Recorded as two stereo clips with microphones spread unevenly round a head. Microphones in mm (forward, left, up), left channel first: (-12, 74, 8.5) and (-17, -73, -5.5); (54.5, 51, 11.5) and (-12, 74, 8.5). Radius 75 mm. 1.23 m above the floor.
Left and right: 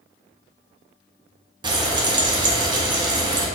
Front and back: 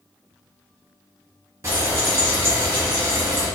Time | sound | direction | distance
1.6 | frying | 145° right | 0.6 m